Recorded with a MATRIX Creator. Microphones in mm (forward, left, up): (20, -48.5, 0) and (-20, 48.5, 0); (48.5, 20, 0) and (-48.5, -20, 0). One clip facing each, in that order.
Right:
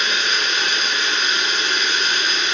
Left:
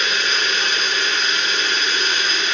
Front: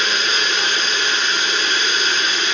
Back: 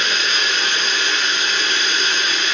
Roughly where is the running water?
Ahead.